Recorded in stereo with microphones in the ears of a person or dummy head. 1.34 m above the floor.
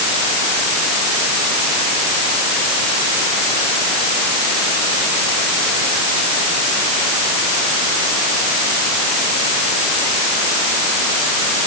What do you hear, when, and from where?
Only background noise.